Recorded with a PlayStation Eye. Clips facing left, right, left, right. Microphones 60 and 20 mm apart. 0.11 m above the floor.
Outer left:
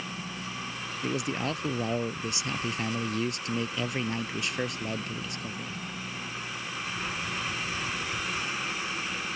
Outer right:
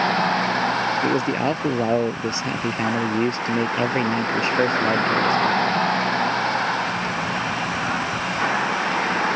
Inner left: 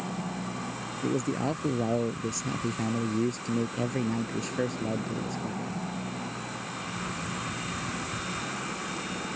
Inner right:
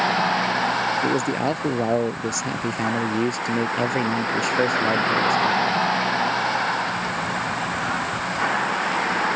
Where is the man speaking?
40° right (ahead or behind).